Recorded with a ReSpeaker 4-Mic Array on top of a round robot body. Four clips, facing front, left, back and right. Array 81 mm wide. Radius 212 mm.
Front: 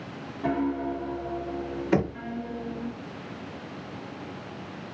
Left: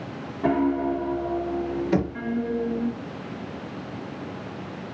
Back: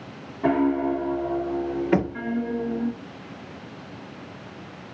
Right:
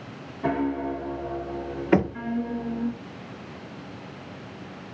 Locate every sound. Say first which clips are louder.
0.4 s a piano: left 4 dB, back 6 dB; 175° left, 1.5 m
1.9 s knocking: right 5 dB, back 1 dB; 105° right, 1.2 m